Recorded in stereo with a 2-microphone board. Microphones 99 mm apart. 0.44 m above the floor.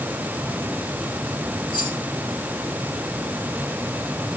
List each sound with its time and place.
1.7 s keys jangling: 55° left (ahead or behind), 9.5 m